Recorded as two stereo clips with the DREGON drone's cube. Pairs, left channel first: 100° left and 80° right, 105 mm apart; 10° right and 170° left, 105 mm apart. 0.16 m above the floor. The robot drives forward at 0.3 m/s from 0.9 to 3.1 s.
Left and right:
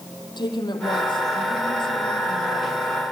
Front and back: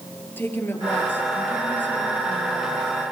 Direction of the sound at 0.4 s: 60° left.